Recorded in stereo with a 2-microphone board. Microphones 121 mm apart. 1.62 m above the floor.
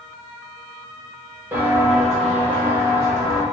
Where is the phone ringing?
I don't hear a phone ringing.